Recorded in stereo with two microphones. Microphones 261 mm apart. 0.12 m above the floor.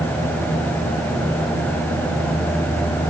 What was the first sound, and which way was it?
Only background noise.